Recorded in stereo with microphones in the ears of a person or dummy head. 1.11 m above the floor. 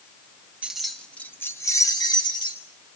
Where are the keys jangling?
5° right (ahead or behind), 1.0 m; by 2.6 s 25° left (ahead or behind), 2.5 m.